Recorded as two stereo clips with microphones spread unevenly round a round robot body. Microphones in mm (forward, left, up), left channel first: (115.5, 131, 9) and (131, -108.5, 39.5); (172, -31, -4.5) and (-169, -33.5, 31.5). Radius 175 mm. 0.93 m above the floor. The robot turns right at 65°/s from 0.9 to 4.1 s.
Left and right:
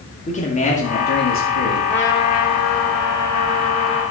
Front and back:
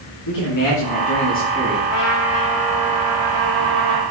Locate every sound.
0.3 s a man speaking: 35° left, 2 m; by 1.8 s 95° left, 2 m
1.9 s a trumpet: 45° left, 2.5 m; by 4.0 s straight behind, 2.5 m